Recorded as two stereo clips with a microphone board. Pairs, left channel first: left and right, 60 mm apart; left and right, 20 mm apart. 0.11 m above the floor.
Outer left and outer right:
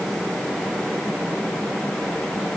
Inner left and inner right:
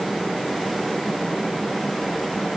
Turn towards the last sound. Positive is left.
No sound to turn to.